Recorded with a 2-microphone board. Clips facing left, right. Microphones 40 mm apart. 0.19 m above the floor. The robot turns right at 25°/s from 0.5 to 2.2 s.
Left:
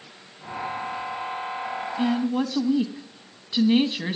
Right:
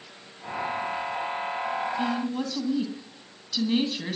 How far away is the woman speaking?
About 1.1 m.